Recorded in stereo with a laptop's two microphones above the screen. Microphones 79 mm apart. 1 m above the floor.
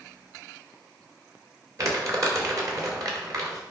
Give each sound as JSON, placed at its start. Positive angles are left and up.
{"t": 1.8, "sound": "crumpling", "side_deg": -45, "distance_m": 3.0}